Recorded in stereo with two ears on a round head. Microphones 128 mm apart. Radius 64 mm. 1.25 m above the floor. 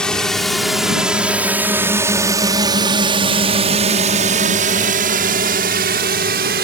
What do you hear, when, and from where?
0.0 s a drone: 5° left (ahead or behind); by 6.6 s 70° right (ahead or behind)